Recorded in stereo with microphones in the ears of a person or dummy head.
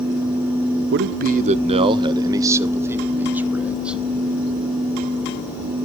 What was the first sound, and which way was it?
A man speaking, 60° right (ahead or behind).